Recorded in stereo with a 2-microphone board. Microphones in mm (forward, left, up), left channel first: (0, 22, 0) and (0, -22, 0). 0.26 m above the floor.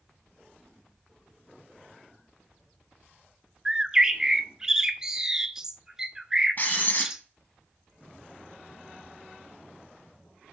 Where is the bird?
15° right (ahead or behind), 0.5 m.